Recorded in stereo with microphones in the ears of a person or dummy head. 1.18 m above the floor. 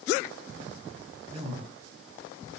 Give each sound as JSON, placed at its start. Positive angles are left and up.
{"t": 1.3, "sound": "a man speaking", "side_deg": -25, "distance_m": 8.5}